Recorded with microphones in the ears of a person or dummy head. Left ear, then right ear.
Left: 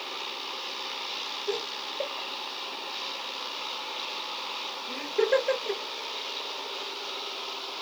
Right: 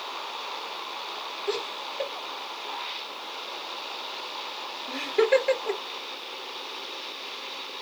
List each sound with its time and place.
1.5 s laughter: 55° right (ahead or behind), 1.5 m